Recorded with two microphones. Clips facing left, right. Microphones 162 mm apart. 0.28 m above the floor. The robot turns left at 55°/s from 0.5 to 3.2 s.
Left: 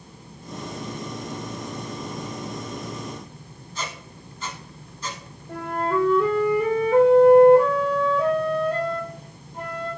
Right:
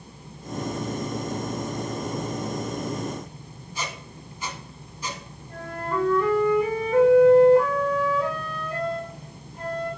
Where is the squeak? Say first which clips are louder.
Even; 10° right (ahead or behind), 1.4 m.